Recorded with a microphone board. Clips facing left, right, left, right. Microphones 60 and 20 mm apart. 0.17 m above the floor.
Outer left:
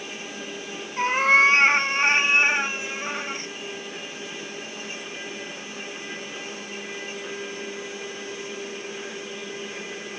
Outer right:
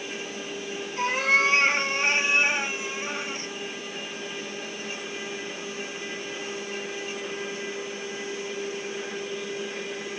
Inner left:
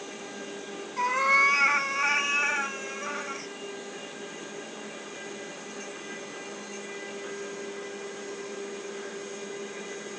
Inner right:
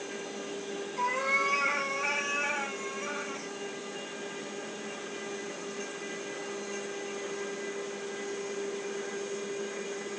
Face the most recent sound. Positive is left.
turn(degrees=35)  # may be behind; listen again after turning